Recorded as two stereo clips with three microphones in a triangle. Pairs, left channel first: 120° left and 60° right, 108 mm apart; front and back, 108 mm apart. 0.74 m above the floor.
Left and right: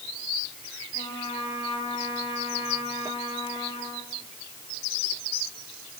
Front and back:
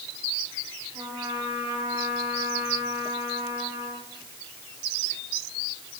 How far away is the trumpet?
About 9 m.